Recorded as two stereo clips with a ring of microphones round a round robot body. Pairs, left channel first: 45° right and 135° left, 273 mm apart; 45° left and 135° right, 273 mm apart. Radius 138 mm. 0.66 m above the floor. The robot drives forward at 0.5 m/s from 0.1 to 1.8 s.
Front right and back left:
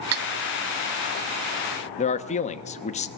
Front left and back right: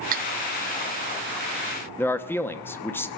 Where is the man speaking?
25° right, 0.9 m.